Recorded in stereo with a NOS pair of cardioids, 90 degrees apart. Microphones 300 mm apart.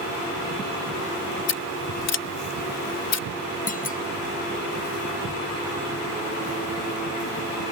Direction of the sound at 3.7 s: 25° left.